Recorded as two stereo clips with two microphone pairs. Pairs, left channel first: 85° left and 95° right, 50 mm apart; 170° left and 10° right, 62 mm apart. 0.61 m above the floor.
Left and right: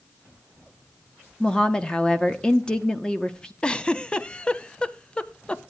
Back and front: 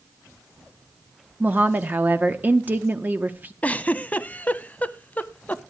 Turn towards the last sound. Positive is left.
turn(degrees=130)